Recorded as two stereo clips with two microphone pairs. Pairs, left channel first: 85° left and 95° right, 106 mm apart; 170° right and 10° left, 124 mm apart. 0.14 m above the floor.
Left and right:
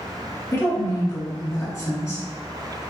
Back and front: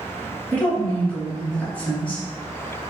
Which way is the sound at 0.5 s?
115° left.